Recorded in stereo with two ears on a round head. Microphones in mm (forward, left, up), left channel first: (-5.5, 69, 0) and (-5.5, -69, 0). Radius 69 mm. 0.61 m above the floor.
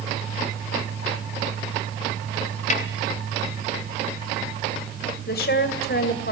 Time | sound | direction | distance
2.7 | a snare drum | 50° left (ahead or behind) | 2.5 m
5.3 | a woman speaking | 65° left (ahead or behind) | 2 m